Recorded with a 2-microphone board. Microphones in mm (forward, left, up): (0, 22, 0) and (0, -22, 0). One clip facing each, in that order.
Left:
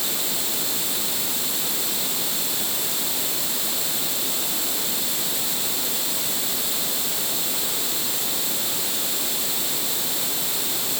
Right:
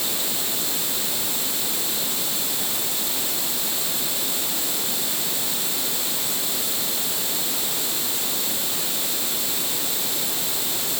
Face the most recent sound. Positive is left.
No sound to turn to.